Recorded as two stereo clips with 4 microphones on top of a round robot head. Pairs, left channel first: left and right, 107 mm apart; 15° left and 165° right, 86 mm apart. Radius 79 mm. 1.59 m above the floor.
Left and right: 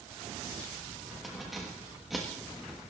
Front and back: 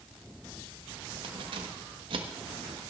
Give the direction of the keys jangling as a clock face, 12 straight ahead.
6 o'clock.